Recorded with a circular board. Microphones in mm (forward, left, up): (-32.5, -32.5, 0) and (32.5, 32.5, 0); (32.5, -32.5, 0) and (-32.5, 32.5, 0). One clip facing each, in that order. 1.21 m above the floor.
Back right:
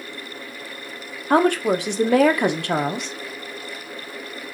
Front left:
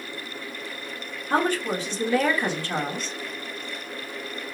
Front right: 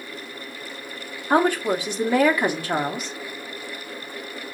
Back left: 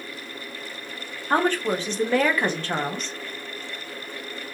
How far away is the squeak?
No squeak in this recording.